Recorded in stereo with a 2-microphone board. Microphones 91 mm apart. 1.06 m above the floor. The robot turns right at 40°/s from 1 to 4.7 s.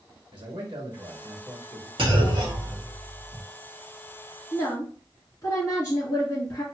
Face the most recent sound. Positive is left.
turn(degrees=30)  # may be behind; listen again after turning